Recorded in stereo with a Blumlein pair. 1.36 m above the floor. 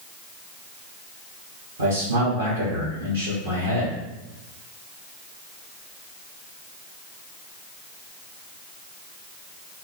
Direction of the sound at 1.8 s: 65° right.